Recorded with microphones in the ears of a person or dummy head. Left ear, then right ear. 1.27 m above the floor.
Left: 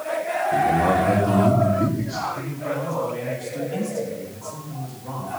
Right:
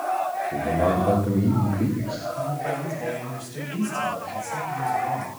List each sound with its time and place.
0.5 s a man speaking: 25° right (ahead or behind), 2 m
2.4 s a man speaking: 55° right (ahead or behind), 8 m